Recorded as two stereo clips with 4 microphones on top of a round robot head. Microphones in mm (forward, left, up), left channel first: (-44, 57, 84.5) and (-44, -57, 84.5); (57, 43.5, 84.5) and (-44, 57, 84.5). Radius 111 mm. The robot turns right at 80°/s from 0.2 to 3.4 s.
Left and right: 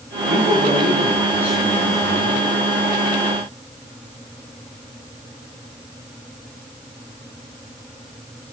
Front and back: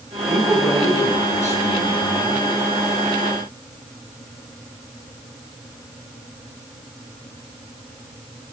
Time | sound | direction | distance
0.3 | a man speaking | 105° right | 6.5 m